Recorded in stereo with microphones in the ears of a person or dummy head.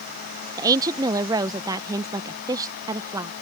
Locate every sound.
0.6 s a woman speaking: 25° right (ahead or behind)